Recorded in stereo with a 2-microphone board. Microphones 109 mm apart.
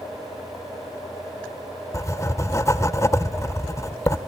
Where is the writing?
30° left (ahead or behind), 0.8 m.